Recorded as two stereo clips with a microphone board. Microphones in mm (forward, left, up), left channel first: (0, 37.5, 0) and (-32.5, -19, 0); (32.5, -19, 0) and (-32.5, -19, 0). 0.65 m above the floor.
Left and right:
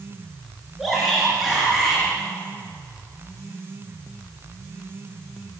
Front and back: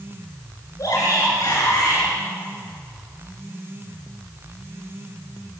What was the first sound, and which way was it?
A shout, 35° right.